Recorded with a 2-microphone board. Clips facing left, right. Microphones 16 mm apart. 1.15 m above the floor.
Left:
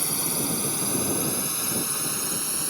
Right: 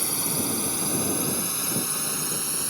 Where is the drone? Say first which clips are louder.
Even; centre (ahead or behind); by 2.7 s 10° left (ahead or behind).